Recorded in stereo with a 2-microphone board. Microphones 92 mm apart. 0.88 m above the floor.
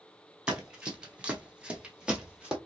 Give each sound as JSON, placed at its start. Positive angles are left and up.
{"t": 0.5, "sound": "running footsteps", "side_deg": -5, "distance_m": 1.2}